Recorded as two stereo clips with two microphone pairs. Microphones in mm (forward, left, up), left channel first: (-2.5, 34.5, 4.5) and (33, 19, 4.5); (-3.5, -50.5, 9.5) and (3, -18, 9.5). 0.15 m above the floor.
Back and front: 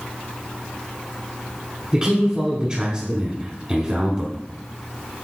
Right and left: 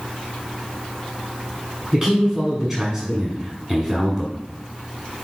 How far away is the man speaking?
About 1.1 m.